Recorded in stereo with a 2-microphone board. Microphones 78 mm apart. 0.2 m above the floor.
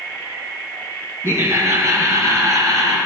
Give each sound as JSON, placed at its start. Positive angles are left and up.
{"t": 1.2, "sound": "laughter", "side_deg": -35, "distance_m": 3.0}